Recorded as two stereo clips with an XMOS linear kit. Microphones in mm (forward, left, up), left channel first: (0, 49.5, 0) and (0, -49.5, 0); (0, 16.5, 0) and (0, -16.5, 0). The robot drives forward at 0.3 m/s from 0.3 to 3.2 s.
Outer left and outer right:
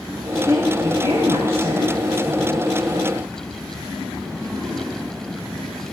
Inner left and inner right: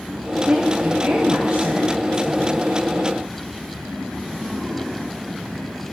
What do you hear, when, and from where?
0.5 s a woman speaking: 35° right (ahead or behind), 4.5 m; by 3.1 s 30° right (ahead or behind), 5 m